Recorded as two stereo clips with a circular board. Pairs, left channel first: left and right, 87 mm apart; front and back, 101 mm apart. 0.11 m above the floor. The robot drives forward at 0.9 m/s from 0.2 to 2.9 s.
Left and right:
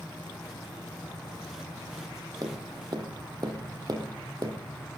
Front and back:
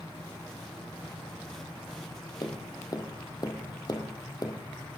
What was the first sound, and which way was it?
Tapping, 45° right.